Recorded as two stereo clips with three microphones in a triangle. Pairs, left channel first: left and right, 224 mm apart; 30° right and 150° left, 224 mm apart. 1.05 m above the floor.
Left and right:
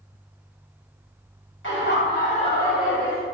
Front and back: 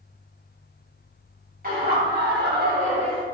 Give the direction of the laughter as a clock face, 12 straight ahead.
8 o'clock.